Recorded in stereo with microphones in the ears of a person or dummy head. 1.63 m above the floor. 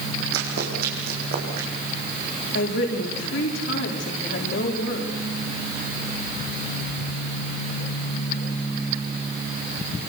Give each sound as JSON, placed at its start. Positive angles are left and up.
{"t": 0.3, "sound": "running footsteps", "side_deg": -65, "distance_m": 5.0}
{"t": 2.5, "sound": "a woman speaking", "side_deg": 75, "distance_m": 5.0}